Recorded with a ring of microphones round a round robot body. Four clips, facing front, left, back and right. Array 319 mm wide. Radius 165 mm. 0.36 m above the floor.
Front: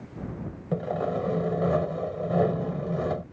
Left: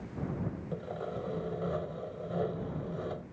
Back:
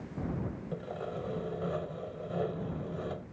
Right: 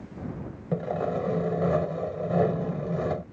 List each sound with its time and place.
0.7 s sawing: 50° right